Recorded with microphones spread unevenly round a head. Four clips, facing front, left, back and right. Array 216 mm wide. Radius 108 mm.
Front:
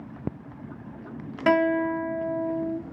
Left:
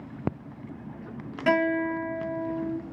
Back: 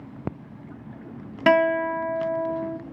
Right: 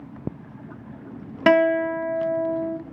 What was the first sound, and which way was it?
A guitar, 120° right.